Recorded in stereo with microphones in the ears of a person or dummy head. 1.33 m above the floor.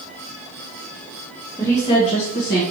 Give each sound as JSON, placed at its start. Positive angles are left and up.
{"t": 1.6, "sound": "a woman speaking", "side_deg": 10, "distance_m": 1.1}